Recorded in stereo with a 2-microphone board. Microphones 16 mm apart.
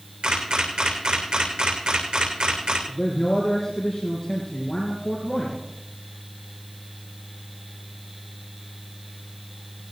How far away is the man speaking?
About 3 m.